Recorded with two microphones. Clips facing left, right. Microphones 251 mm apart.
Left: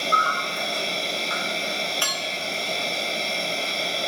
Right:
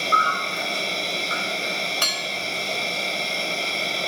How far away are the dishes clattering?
About 1.0 m.